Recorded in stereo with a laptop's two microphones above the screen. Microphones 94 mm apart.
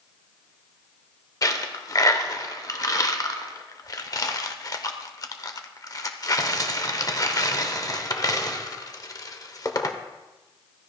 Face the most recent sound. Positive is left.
turn(degrees=40)  # may be behind; listen again after turning